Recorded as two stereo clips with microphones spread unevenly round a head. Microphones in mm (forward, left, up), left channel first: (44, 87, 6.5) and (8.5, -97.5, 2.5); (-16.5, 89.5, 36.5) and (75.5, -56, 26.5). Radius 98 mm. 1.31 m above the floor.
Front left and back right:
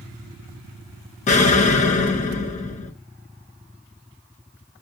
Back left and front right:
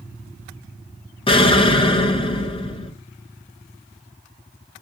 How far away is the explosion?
About 0.5 m.